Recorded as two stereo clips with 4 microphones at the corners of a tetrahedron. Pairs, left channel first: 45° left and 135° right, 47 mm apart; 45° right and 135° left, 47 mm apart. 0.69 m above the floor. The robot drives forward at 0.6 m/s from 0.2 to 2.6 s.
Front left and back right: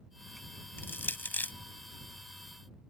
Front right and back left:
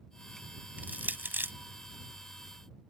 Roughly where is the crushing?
Left.